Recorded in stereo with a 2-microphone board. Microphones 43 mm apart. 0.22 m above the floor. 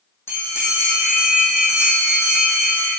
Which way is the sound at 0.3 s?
85° left.